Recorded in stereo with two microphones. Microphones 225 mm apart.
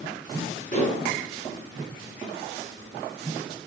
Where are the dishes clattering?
35° left (ahead or behind), 4.5 m.